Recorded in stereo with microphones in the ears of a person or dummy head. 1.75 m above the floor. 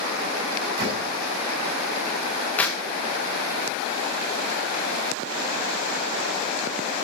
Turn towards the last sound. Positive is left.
turn(degrees=5)  # may be behind; listen again after turning